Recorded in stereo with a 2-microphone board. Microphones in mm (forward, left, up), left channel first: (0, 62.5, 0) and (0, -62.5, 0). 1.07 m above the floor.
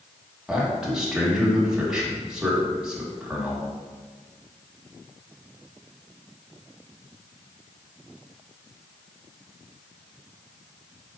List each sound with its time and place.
0.5 s a man speaking: 5° right (ahead or behind), 1.7 m